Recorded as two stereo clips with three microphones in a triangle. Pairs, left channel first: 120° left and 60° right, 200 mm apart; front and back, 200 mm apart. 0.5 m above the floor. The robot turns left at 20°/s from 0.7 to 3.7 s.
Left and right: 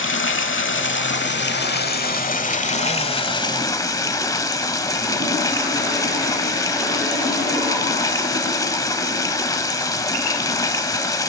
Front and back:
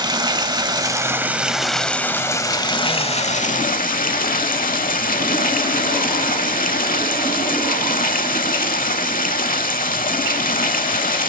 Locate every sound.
0.0 s running water: 110° left, 0.9 m; by 11.3 s 50° left, 0.9 m